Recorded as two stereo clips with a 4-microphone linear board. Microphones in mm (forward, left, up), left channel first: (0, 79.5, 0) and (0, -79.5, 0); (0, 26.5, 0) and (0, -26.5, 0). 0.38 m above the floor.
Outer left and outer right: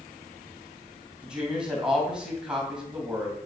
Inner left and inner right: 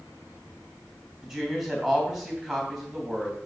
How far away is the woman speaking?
About 3 m.